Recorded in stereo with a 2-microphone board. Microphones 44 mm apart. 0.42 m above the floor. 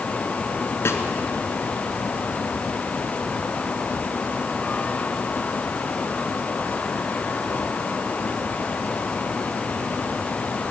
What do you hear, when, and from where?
0.8 s a snare drum: 85° left, 1.7 m